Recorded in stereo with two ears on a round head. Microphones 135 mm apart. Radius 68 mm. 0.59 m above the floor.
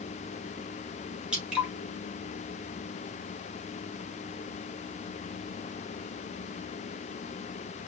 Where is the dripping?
5° right (ahead or behind), 3.5 m.